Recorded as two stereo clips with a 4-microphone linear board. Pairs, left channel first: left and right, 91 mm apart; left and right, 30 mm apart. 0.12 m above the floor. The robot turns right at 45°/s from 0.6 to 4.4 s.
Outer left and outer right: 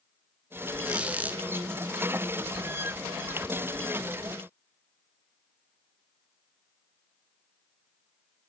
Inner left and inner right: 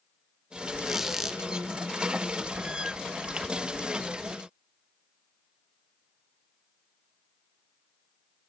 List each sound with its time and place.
0.8 s a squeak: 10° right (ahead or behind), 0.6 m; by 1.4 s 20° right (ahead or behind), 0.6 m